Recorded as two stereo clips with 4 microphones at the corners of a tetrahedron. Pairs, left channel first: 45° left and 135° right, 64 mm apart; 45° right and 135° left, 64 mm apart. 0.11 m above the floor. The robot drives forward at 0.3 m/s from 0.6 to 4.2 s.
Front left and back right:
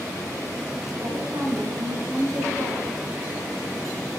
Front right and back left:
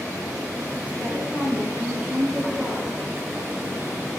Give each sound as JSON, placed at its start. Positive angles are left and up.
{"t": 1.0, "sound": "a woman speaking", "azimuth_deg": -125, "distance_m": 6.5}